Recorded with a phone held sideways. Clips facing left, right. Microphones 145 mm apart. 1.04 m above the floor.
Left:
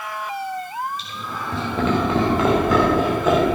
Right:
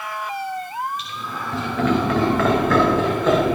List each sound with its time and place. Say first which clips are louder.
1.0 s laughter: even; 30° left (ahead or behind), 5 m; by 3.6 s centre (ahead or behind), 3 m